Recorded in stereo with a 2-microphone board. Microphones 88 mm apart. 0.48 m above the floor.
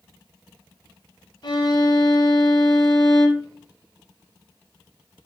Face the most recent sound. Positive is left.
turn(degrees=55)  # may be behind; listen again after turning